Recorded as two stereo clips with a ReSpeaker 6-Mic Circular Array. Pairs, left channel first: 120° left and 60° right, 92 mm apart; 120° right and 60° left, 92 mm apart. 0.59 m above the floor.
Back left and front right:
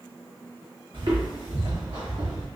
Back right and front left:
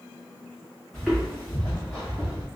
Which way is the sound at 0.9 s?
35° right.